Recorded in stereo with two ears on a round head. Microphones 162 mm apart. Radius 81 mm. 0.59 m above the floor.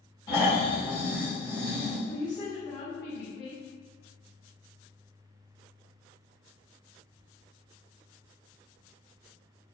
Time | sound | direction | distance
0.3 | snoring | 20° left (ahead or behind) | 1.5 m
2.1 | a woman speaking | 25° left (ahead or behind) | 0.8 m